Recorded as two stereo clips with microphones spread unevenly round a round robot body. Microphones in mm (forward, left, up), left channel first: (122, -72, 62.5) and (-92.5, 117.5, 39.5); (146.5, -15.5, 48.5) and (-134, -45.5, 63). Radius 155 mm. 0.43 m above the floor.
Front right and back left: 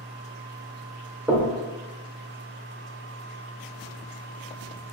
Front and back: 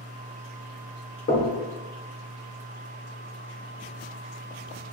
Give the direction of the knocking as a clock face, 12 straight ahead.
10 o'clock.